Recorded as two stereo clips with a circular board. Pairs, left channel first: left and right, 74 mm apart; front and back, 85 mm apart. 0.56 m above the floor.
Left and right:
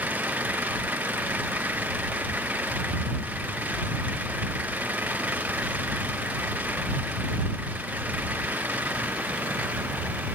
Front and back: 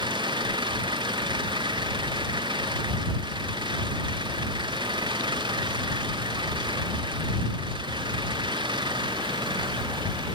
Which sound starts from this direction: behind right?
An engine running, at 0.0 s.